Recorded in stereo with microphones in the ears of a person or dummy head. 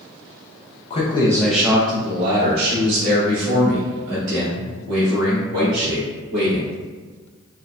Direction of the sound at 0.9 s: 30° left (ahead or behind).